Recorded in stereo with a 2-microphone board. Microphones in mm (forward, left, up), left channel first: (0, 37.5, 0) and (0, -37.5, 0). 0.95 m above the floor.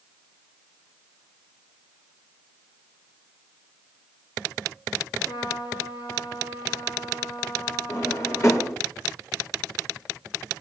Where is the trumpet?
70° left (ahead or behind), 7 m.